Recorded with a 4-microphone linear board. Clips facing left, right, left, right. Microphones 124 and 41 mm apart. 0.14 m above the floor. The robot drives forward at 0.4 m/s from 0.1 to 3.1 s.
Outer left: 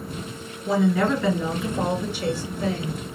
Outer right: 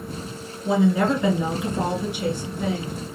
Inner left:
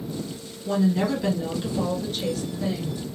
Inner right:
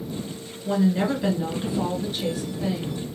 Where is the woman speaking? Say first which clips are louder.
Outer right 1 dB, even; 20° right (ahead or behind), 1.4 m; by 3.0 s 15° right (ahead or behind), 2 m.